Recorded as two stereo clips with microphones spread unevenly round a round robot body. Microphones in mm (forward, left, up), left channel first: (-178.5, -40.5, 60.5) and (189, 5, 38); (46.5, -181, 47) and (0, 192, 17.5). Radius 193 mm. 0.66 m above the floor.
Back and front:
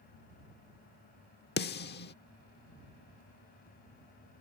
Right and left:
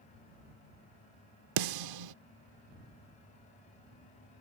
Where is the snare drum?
120° left.